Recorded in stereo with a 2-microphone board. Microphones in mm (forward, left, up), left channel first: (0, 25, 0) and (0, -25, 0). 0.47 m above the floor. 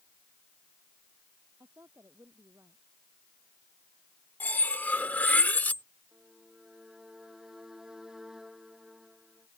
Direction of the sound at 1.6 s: 65° right (ahead or behind).